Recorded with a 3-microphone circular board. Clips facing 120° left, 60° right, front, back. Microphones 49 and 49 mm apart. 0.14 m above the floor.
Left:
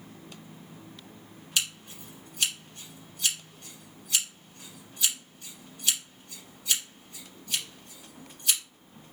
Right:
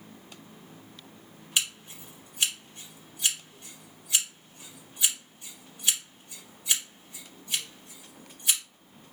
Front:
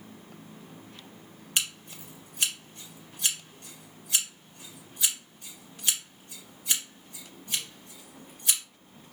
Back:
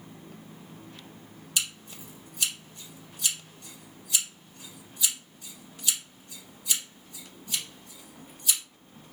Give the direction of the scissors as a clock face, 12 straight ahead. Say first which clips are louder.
Right 1 dB, front 1 dB; 12 o'clock.